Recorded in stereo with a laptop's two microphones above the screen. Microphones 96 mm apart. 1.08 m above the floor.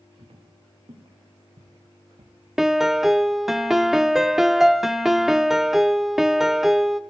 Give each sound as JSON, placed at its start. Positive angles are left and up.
{"t": 0.2, "sound": "footsteps", "side_deg": -70, "distance_m": 6.5}
{"t": 2.6, "sound": "a piano", "side_deg": -5, "distance_m": 0.8}